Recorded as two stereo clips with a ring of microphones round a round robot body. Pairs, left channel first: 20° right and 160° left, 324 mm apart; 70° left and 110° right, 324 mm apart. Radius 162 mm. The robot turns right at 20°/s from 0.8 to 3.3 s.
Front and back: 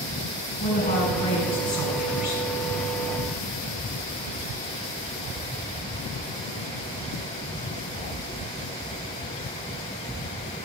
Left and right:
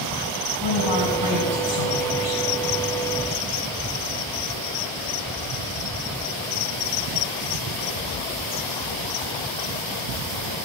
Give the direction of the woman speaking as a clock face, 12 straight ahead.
10 o'clock.